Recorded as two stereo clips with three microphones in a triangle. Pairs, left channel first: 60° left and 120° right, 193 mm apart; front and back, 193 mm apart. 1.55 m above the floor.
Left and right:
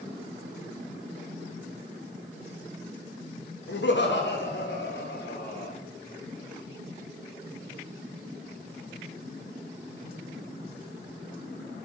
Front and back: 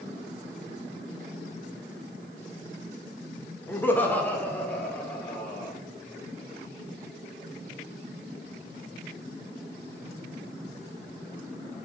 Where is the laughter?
80° left, 1.0 m; by 5.7 s 85° left, 2 m.